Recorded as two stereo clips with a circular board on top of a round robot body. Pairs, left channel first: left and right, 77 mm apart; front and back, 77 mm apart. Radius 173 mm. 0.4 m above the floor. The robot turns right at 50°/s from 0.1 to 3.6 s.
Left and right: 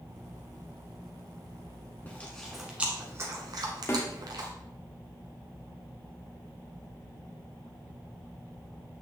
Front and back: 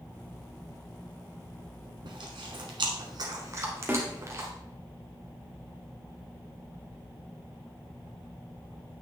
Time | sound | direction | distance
2.0 | chewing | 155° left | 1.0 m
3.9 | a snare drum | 125° left | 1.9 m